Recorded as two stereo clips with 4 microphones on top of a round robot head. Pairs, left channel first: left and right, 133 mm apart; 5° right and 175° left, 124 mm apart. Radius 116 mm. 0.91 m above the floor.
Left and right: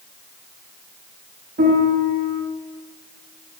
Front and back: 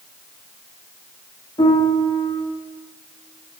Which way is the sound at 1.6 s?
65° right.